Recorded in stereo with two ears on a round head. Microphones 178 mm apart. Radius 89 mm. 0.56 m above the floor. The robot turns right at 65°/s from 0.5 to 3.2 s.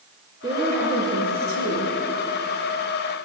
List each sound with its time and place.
0.4 s a woman speaking: 160° right, 8 m; by 1.9 s 65° right, 8 m